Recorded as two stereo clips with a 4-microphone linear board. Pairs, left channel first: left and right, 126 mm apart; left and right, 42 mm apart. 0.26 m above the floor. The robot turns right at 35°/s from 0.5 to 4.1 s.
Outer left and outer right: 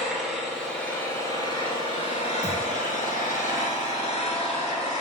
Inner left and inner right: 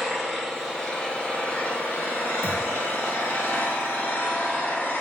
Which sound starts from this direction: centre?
A thud, at 2.4 s.